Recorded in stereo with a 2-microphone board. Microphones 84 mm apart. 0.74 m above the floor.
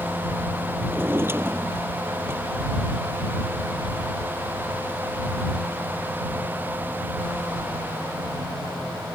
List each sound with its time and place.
0.9 s a drawer: 30° right (ahead or behind)